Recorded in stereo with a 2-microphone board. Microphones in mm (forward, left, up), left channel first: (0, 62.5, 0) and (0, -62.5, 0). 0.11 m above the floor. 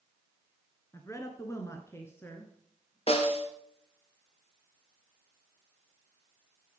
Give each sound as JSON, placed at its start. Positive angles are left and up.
{"t": 0.9, "sound": "a woman speaking", "side_deg": 25, "distance_m": 1.6}
{"t": 3.1, "sound": "a snare drum", "side_deg": 50, "distance_m": 1.5}